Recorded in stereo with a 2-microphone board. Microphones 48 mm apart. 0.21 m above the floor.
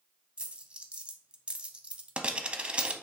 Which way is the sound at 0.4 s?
25° right (ahead or behind).